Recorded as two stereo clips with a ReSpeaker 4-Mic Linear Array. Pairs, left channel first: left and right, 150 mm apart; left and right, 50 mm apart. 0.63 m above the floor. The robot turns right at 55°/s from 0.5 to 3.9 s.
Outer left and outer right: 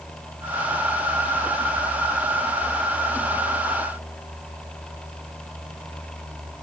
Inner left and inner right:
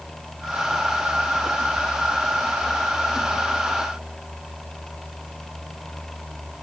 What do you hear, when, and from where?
Only background noise.